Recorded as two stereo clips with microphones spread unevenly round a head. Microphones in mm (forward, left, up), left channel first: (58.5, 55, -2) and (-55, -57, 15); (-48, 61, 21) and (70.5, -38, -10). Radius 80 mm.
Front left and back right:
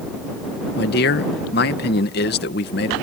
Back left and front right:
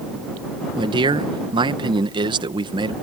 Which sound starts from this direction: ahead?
A man speaking, at 0.8 s.